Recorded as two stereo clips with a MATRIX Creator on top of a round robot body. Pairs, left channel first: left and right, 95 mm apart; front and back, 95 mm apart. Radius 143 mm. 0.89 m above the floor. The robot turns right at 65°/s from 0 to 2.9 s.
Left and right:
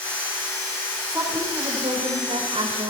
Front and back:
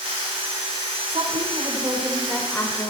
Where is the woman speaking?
170° right, 4 m; by 2.9 s 50° right, 4 m.